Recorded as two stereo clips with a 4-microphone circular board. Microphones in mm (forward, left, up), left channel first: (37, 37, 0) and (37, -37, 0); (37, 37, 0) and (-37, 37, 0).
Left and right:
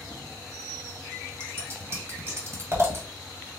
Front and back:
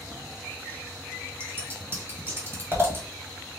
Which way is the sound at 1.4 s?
135° right.